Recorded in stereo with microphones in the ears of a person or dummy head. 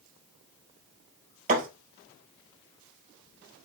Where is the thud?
40° right (ahead or behind), 4 m.